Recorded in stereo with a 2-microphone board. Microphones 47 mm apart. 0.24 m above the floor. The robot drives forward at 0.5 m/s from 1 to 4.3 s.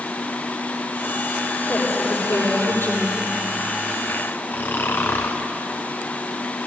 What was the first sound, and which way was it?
A woman speaking, 65° left (ahead or behind).